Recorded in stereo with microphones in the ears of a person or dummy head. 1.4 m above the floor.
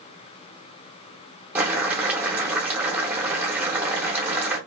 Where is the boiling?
10° right (ahead or behind), 0.9 m.